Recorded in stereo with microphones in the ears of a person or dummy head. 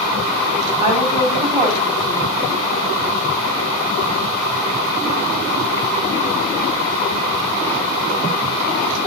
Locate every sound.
0.8 s a woman speaking: 15° right (ahead or behind), 7 m